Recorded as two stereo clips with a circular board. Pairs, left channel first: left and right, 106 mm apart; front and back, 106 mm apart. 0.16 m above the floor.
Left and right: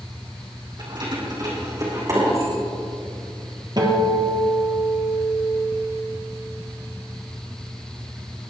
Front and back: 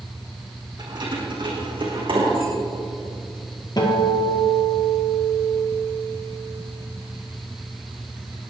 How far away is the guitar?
About 3.5 m.